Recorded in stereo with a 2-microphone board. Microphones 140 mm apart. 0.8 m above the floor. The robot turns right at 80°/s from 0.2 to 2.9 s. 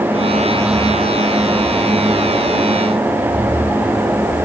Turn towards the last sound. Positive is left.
No sound to turn to.